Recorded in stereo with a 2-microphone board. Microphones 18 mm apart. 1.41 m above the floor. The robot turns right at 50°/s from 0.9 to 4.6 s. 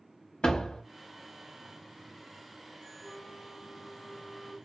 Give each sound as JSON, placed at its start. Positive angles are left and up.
{"t": 0.4, "sound": "a door slam", "side_deg": 65, "distance_m": 1.2}
{"t": 3.0, "sound": "a flute", "azimuth_deg": -115, "distance_m": 0.8}